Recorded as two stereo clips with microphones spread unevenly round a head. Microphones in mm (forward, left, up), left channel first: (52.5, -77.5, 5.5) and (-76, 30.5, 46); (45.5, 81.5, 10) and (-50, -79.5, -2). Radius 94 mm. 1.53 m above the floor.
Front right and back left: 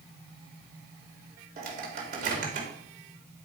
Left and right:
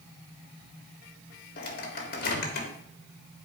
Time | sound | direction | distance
1.6 | a microwave | 100° left | 2.5 m